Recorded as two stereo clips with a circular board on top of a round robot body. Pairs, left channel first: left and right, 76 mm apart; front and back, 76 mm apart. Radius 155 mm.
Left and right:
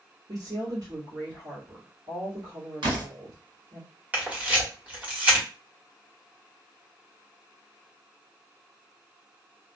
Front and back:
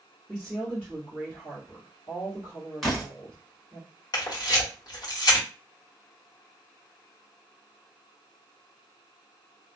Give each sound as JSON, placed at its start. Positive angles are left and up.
{"t": 0.3, "sound": "a woman speaking", "azimuth_deg": -80, "distance_m": 1.6}
{"t": 2.8, "sound": "a door slam", "azimuth_deg": -85, "distance_m": 1.7}
{"t": 4.1, "sound": "a camera shutter", "azimuth_deg": -20, "distance_m": 1.4}